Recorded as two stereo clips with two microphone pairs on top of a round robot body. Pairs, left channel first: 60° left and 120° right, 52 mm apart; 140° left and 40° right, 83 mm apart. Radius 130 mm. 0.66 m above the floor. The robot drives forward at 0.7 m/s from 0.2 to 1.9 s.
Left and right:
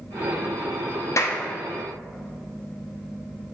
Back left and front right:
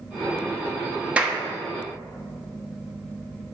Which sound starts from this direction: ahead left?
A clap, at 1.2 s.